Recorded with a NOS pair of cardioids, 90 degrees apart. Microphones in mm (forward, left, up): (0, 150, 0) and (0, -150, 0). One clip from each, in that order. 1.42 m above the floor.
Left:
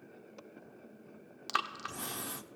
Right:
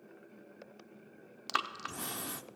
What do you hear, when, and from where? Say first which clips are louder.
1.5 s breathing: even; 5° right, 0.7 m